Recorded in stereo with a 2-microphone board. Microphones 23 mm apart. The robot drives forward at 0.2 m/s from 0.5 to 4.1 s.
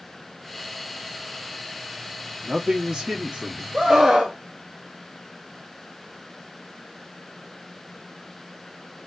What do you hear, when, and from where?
2.4 s a man speaking: 30° right (ahead or behind), 0.9 m
3.7 s a scream: 35° right (ahead or behind), 1.1 m